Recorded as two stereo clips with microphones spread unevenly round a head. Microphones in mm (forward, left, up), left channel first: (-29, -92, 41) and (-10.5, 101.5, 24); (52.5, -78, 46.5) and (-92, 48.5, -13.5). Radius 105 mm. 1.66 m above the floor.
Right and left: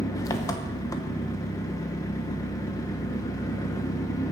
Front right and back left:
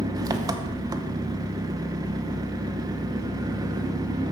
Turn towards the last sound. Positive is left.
turn(degrees=-130)